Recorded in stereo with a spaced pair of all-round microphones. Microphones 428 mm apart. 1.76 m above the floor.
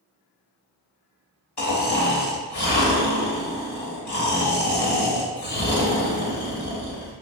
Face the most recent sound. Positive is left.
turn(degrees=65)  # may be behind; listen again after turning